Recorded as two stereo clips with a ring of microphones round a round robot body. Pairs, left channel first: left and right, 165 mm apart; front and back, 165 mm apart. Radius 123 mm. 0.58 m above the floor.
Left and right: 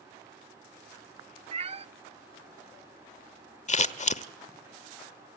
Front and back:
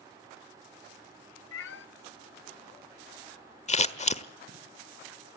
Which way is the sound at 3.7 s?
45° left.